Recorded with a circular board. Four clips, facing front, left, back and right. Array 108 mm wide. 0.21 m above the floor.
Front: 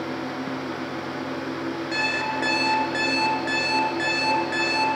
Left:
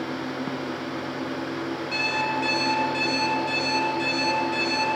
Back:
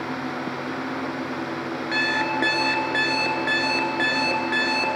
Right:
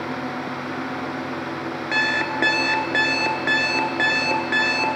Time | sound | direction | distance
1.9 | an alarm clock | 105° right | 1.9 m